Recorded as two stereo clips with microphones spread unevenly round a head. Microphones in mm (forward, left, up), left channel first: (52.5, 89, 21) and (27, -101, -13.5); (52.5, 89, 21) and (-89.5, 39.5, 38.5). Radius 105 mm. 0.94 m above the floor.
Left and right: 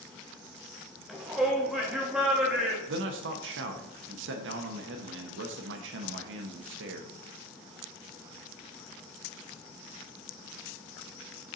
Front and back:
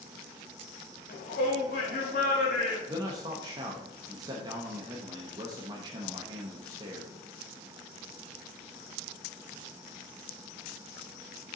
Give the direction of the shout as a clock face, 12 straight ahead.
12 o'clock.